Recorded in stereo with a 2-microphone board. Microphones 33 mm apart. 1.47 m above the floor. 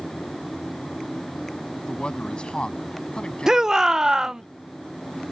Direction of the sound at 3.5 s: 15° right (ahead or behind).